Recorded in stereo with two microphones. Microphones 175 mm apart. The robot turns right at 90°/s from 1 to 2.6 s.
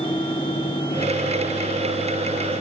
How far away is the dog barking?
No dog barking in this recording.